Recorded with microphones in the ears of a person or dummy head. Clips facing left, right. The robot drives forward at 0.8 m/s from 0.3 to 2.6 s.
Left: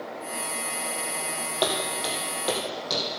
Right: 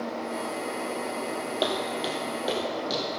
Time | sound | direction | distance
1.6 | footsteps | 10° right (ahead or behind) | 2.5 m